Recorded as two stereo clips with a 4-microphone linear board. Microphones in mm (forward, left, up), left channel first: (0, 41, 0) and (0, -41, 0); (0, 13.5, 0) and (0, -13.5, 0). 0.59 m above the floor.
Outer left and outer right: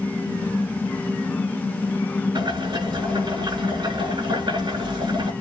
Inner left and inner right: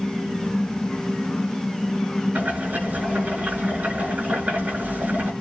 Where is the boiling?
75° right (ahead or behind), 6.5 m.